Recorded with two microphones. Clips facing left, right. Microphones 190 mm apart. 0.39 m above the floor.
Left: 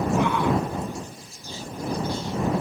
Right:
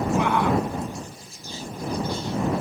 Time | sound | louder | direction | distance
0.2 | a shout | right 2 dB | 65° right (ahead or behind) | ?